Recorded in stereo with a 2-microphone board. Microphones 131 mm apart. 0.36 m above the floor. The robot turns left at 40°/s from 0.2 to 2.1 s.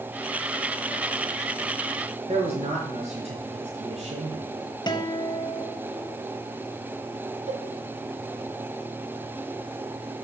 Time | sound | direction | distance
2.3 | a man speaking | 55° right (ahead or behind) | 5 m
4.9 | a guitar | 35° left (ahead or behind) | 0.8 m
7.5 | a cowbell | 70° right (ahead or behind) | 1.7 m